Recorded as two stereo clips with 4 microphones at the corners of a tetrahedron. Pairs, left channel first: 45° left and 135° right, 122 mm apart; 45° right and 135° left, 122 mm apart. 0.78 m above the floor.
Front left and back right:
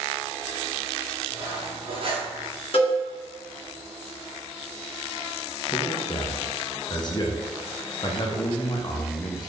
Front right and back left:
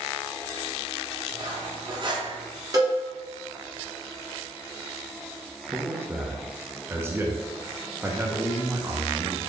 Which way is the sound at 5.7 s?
75° left.